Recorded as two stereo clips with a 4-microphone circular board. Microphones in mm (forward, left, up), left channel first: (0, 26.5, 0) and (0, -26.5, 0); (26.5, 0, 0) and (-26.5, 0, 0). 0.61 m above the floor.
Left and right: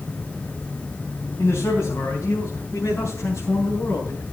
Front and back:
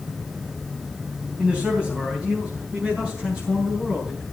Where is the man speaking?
115° left, 4 m; by 4.2 s 110° left, 5.5 m.